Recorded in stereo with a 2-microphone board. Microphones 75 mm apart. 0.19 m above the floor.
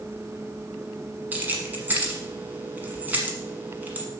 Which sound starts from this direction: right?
Keys jangling, at 1.3 s.